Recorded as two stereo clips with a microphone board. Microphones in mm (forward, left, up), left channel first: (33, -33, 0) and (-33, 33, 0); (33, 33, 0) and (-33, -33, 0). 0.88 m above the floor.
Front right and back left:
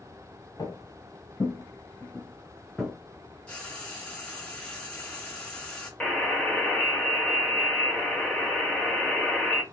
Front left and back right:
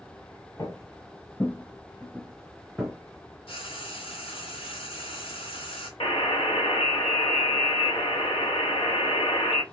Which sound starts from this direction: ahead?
Footsteps, at 0.6 s.